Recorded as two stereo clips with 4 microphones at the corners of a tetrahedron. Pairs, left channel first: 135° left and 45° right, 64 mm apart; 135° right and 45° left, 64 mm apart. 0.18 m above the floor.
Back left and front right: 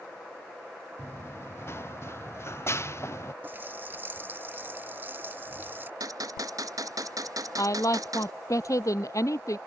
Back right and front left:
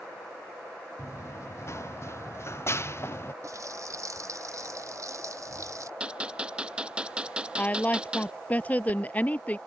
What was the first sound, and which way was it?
Running footsteps, 175° right.